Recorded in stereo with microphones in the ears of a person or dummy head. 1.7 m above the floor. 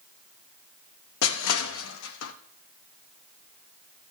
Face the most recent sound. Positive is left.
turn(degrees=70)  # may be behind; listen again after turning